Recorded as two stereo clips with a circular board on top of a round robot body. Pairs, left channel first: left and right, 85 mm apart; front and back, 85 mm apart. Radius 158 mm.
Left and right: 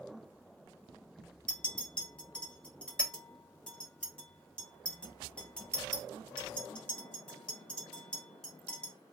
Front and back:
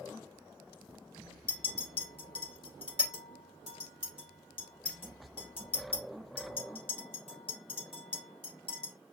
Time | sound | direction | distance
1.5 | a clink | 10° left | 1.5 m